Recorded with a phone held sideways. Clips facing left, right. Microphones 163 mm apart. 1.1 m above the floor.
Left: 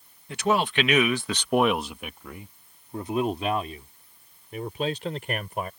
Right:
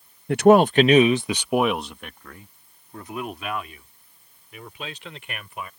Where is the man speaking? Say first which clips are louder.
Right 10 dB; 55° right (ahead or behind); by 5.7 s 40° left (ahead or behind).